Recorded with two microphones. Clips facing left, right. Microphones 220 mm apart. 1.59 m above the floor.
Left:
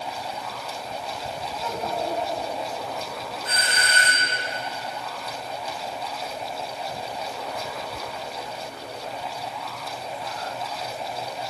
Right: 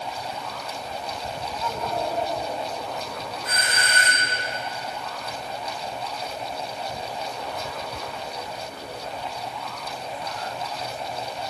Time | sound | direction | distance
1.6 | a child speaking | 30° left (ahead or behind) | 7 m
3.5 | a doorbell | 30° left (ahead or behind) | 4.5 m